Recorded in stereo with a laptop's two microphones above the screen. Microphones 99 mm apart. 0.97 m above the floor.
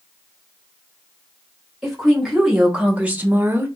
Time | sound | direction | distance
1.8 | a woman speaking | centre (ahead or behind) | 1.6 m